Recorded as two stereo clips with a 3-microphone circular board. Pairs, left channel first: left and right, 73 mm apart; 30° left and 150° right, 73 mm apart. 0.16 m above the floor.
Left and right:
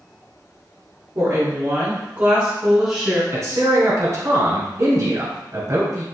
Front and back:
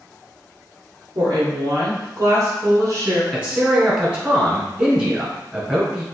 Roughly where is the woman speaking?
Behind right.